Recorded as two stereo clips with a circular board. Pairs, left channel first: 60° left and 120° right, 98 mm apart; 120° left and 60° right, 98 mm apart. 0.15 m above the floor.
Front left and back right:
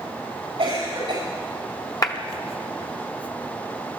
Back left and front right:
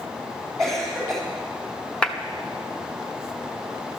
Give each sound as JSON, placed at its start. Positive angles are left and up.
{"t": 0.6, "sound": "a cough", "azimuth_deg": -155, "distance_m": 7.5}
{"t": 2.0, "sound": "a clap", "azimuth_deg": 50, "distance_m": 1.0}